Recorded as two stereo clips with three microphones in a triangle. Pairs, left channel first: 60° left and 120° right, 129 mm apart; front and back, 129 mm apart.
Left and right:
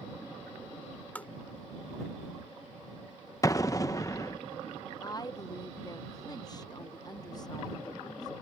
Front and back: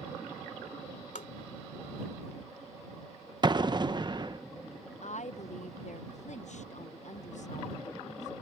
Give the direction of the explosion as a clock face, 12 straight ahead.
8 o'clock.